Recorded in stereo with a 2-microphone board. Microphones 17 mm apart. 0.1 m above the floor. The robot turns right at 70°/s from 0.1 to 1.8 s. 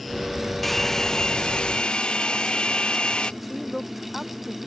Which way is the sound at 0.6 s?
10° left.